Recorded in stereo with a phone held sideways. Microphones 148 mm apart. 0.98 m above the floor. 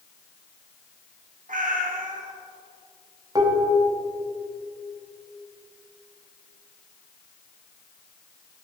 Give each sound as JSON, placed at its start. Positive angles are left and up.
{"t": 1.5, "sound": "a cat meowing", "side_deg": -65, "distance_m": 1.0}
{"t": 3.4, "sound": "dishes clattering", "side_deg": -25, "distance_m": 0.8}